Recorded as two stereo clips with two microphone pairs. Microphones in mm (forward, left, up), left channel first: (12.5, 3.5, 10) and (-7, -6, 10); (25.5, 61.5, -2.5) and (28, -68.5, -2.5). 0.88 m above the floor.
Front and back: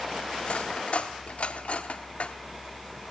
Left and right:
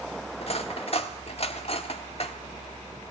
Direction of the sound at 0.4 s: 50° left.